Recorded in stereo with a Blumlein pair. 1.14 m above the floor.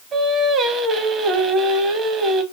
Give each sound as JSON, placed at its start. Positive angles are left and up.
{"t": 0.1, "sound": "singing", "azimuth_deg": -20, "distance_m": 0.7}